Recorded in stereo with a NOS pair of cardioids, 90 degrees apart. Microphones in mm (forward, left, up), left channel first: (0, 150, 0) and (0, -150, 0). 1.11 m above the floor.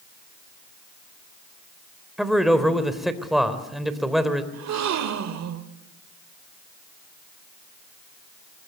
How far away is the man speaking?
About 3.5 m.